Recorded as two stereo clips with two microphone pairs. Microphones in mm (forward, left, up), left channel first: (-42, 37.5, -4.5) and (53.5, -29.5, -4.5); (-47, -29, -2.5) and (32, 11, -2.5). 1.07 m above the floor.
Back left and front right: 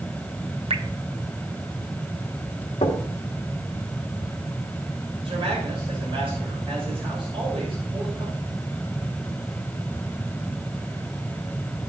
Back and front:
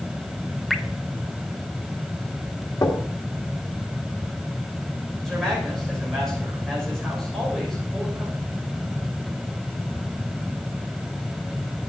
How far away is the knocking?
About 1.6 m.